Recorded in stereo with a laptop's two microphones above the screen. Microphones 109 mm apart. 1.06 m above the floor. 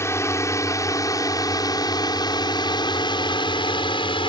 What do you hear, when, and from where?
0.0 s a drone: 25° left (ahead or behind); by 4.3 s 60° left (ahead or behind)